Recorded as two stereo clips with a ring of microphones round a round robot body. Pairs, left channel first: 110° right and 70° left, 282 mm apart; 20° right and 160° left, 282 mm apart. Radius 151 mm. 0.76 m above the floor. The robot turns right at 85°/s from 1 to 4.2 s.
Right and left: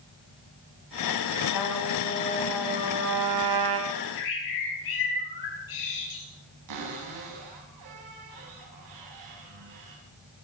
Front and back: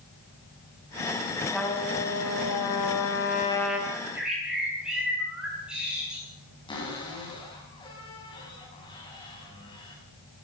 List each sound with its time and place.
1.5 s a trumpet: 115° right, 3.5 m; by 3.8 s 75° left, 3.5 m
3.9 s a bird: 140° right, 10 m; by 6.2 s 115° right, 10 m
6.7 s a cupboard door: 50° left, 7 m